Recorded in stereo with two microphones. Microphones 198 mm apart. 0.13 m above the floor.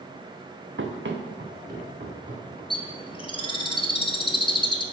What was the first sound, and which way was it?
Running footsteps, 80° right.